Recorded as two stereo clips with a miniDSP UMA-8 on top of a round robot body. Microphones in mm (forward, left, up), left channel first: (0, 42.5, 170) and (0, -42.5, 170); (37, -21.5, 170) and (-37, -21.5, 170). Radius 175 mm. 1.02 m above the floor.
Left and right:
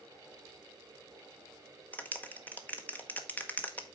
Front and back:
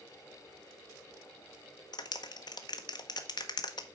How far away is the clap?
About 1.1 m.